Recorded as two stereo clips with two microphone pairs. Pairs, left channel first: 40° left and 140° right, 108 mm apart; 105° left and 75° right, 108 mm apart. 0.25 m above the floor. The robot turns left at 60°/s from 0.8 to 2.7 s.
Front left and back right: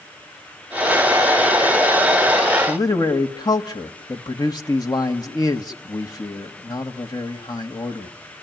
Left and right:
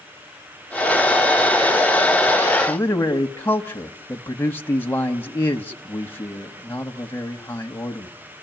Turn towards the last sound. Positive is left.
turn(degrees=45)